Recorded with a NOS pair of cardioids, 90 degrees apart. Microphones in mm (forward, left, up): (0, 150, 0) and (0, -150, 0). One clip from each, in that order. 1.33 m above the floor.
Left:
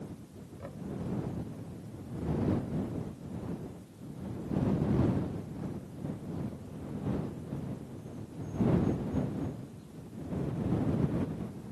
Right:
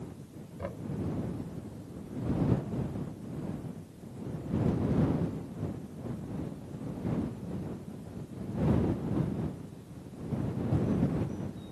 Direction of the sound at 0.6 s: 40° right.